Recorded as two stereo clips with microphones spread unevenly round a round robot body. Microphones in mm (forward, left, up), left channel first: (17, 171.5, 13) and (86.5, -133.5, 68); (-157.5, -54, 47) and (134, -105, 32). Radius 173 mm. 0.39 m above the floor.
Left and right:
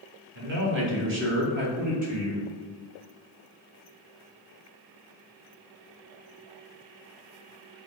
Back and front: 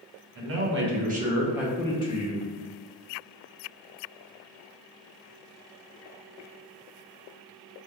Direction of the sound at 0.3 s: 20° right.